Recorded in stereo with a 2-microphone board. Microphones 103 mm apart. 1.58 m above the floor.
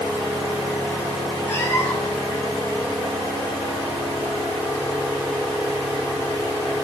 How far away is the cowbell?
I don't hear a cowbell.